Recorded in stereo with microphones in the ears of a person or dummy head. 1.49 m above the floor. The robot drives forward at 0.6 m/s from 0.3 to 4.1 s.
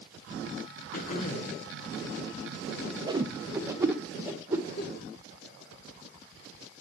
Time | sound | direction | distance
0.9 | throat clearing | 40° left (ahead or behind) | 1.4 m
3.1 | a whoosh | 25° right (ahead or behind) | 0.7 m
4.8 | a giggle | 35° left (ahead or behind) | 6 m